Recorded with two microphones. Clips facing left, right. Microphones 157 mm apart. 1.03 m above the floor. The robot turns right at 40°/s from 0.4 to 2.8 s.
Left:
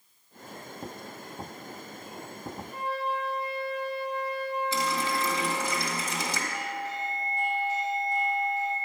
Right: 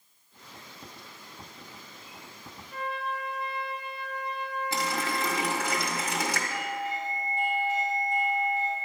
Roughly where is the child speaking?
I don't hear a child speaking.